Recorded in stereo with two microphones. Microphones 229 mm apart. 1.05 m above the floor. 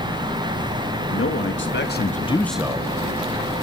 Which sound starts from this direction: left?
A man speaking, at 1.1 s.